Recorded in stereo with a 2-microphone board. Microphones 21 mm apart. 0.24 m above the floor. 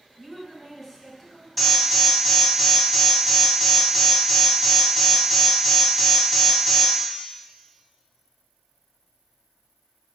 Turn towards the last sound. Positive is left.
turn(degrees=10)  # may be behind; listen again after turning